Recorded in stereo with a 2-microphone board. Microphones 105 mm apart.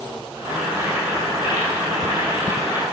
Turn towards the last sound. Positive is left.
turn(degrees=-15)  # may be behind; listen again after turning